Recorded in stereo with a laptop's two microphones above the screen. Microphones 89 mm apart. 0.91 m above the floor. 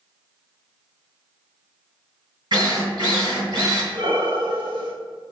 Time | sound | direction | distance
2.5 | a drill | 55° right (ahead or behind) | 3 m
3.9 | breathing | 65° right (ahead or behind) | 1.1 m